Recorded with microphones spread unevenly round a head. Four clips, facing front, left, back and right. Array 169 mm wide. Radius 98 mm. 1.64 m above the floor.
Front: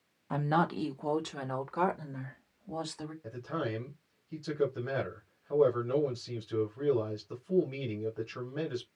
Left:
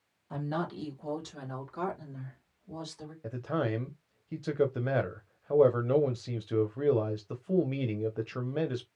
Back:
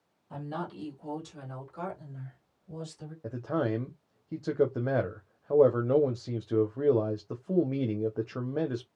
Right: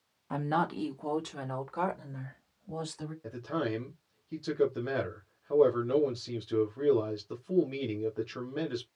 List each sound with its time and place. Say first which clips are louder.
0.3 s a woman speaking: right 4 dB, front 8 dB; 30° right, 1.6 m; by 3.1 s 15° right, 3 m
3.2 s a man speaking: left 2 dB, back 6 dB; 160° left, 1.2 m